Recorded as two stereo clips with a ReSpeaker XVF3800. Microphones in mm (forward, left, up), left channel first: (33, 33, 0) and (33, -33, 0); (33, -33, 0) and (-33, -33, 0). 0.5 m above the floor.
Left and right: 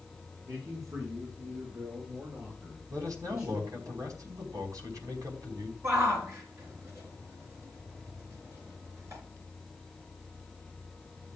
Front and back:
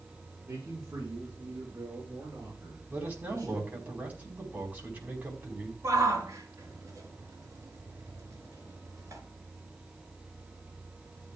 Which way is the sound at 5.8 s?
135° right.